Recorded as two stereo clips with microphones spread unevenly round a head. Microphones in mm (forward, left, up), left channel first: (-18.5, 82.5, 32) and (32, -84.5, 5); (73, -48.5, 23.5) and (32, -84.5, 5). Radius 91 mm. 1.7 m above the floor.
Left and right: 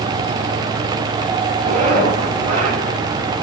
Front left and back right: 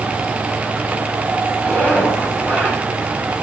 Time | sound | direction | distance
1.6 | a zipper | 20° right | 6.5 m